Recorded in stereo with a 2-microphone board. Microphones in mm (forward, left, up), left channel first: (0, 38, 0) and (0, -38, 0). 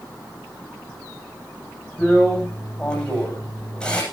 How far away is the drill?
About 9.5 m.